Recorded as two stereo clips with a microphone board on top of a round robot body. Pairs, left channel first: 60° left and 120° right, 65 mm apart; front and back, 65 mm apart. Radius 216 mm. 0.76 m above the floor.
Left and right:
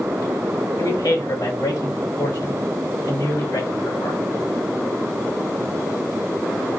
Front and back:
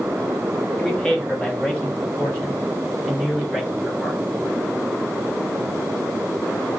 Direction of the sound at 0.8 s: 70° left.